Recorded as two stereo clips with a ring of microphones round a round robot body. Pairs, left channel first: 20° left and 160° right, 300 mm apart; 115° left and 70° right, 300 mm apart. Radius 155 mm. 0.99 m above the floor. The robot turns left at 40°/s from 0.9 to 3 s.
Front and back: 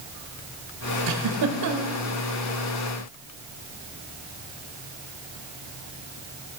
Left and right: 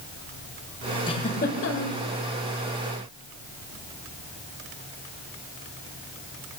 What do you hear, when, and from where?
1.1 s a giggle: 170° right, 1.8 m; by 2.0 s 150° left, 1.8 m